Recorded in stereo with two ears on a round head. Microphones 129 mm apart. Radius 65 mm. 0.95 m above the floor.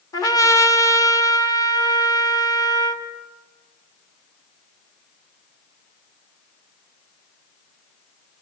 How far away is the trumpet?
About 2.5 m.